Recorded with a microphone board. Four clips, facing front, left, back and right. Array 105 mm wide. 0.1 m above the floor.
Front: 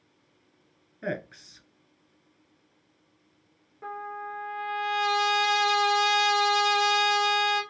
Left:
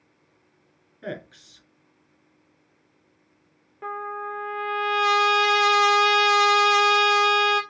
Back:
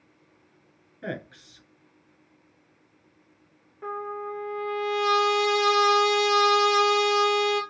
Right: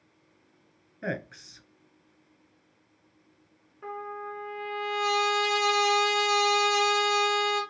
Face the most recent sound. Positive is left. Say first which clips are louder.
# left 5 dB, back 3 dB
turn(degrees=100)